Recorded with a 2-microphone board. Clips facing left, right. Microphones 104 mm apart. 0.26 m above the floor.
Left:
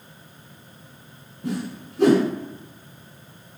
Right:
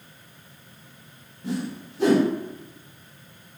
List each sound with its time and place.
1.4 s a whoosh: 70° left (ahead or behind), 0.9 m